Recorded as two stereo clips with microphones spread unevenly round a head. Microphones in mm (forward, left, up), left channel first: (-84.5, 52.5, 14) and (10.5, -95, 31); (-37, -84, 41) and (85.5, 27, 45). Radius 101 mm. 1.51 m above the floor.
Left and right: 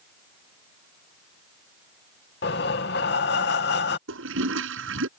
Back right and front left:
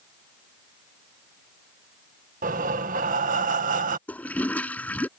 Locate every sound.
2.4 s breathing: 90° left
4.1 s a toilet flushing: 55° right